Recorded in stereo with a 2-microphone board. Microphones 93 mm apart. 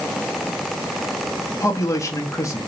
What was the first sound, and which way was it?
A man speaking, 30° left (ahead or behind).